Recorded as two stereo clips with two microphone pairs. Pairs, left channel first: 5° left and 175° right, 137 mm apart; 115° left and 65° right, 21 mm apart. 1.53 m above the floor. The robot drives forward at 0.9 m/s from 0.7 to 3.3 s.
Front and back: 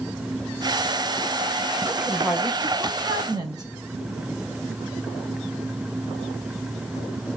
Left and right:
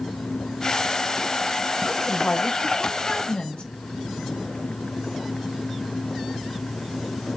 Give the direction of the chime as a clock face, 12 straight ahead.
I don't hear a chime.